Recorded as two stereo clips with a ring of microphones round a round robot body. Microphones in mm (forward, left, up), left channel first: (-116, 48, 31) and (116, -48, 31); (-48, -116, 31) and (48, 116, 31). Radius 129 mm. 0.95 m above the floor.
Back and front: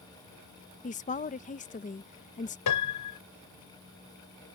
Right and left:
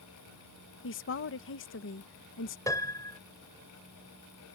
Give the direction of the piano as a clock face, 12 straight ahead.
6 o'clock.